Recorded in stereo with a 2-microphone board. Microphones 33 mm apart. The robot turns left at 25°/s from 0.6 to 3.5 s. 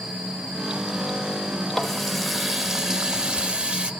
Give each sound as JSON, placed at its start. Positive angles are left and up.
{"t": 1.7, "sound": "a running tap", "azimuth_deg": 10, "distance_m": 0.7}